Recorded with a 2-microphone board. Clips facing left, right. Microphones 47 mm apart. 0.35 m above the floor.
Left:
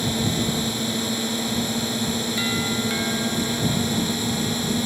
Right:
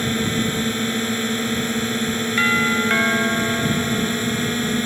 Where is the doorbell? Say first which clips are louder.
Right 11 dB; 50° right (ahead or behind).